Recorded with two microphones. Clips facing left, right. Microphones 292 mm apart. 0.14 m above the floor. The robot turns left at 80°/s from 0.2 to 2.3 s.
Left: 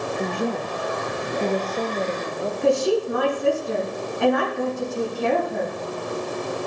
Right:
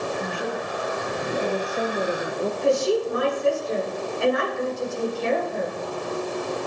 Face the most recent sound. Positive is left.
turn(degrees=60)  # may be behind; listen again after turning